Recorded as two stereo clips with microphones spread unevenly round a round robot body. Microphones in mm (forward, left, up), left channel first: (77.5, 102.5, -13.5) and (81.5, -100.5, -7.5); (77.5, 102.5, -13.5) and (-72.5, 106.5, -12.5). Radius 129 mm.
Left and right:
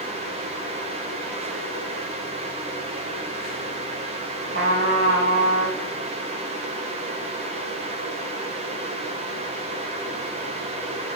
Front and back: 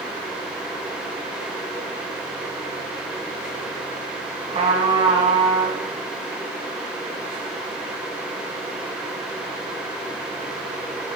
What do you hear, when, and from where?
4.5 s a trumpet: 125° right, 2.5 m